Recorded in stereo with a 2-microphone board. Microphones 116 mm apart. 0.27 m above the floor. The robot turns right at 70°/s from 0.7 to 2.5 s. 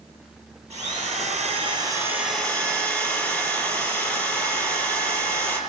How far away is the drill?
About 6 m.